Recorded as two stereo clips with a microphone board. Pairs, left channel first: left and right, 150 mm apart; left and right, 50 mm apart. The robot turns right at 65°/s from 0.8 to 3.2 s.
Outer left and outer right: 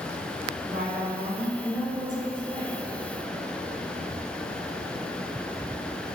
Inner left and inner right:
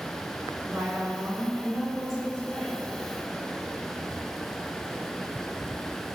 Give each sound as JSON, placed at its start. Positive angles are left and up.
{"t": 0.7, "sound": "a woman speaking", "azimuth_deg": -85, "distance_m": 1.7}